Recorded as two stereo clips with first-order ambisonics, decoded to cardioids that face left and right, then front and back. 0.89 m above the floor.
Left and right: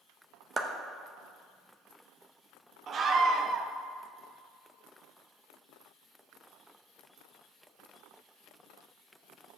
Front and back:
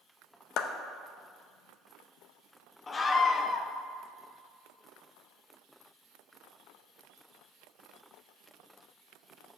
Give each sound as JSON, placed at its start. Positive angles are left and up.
{"t": 0.6, "sound": "a clap", "azimuth_deg": -25, "distance_m": 0.6}
{"t": 2.9, "sound": "a scream", "azimuth_deg": -55, "distance_m": 0.6}